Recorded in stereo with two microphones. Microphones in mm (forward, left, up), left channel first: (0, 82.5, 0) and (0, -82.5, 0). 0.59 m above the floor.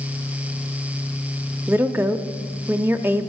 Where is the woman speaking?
15° right (ahead or behind), 0.7 m.